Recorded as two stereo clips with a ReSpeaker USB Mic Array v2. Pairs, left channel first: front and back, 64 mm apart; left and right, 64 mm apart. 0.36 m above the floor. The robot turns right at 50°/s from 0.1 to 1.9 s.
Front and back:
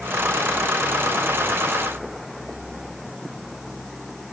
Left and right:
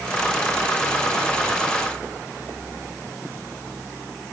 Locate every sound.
Only background noise.